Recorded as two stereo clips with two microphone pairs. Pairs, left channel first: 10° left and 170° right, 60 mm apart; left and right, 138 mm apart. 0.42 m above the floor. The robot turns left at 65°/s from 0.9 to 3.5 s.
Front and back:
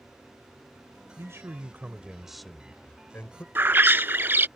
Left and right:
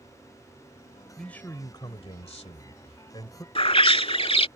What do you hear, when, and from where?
1.2 s a man speaking: straight behind; by 3.5 s 30° left
3.5 s a bird: 140° left